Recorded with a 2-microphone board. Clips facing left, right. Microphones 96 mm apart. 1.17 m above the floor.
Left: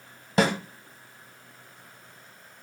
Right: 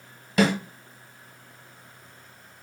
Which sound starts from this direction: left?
A snare drum, at 0.4 s.